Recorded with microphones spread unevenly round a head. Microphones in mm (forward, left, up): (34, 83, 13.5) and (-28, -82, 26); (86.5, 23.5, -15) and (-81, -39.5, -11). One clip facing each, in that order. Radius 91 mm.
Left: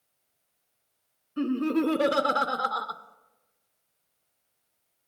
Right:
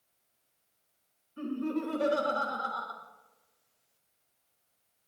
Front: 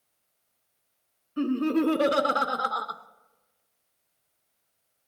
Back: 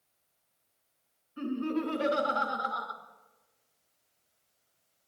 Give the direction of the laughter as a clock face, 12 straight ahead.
10 o'clock.